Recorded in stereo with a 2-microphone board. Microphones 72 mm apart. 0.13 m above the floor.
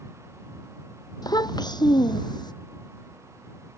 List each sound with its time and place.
1.2 s a child speaking: 65° left (ahead or behind); by 2.5 s 75° left (ahead or behind)